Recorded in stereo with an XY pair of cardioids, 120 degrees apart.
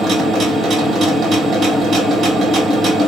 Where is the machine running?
50° right, 1.6 m.